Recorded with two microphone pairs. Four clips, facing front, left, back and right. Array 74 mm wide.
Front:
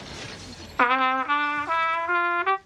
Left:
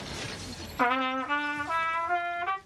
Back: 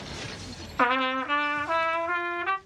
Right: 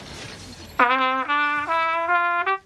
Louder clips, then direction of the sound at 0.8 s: Right 8 dB, front 3 dB; 65° right.